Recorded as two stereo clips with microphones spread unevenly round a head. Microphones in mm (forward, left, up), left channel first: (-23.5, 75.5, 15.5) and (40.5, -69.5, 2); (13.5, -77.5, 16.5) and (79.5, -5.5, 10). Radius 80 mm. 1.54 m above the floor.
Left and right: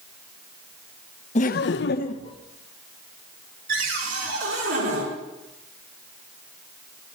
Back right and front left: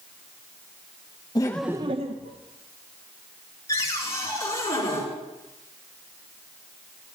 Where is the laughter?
165° left, 0.8 m; by 2.4 s 50° left, 1.0 m.